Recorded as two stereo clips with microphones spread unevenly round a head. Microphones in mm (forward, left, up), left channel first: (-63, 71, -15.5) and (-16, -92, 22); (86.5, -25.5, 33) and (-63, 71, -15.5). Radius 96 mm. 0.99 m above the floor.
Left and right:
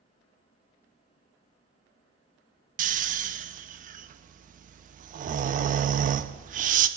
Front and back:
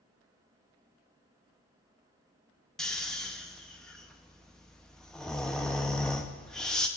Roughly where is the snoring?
Behind right.